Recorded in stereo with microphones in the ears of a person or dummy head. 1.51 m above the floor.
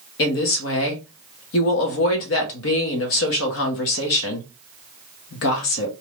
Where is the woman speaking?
65° left (ahead or behind), 0.9 m.